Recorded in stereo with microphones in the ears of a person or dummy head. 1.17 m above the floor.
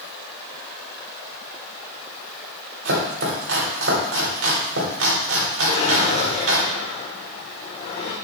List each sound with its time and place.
2.9 s chopping: 80° right, 2.5 m
5.7 s a drawer: 30° left (ahead or behind), 1.0 m